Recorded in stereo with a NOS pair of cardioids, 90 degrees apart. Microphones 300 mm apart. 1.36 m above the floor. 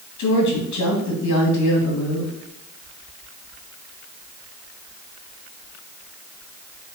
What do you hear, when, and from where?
0.2 s a woman speaking: 65° left, 2.5 m